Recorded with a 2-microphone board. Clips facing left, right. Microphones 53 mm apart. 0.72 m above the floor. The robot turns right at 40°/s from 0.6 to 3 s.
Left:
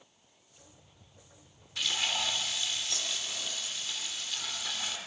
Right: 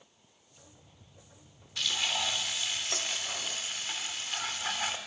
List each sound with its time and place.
1.8 s frying: 170° left, 2 m; by 5.0 s 140° right, 2 m